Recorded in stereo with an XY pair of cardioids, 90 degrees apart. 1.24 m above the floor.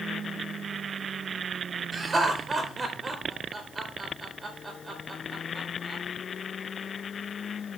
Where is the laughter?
30° right, 4 m.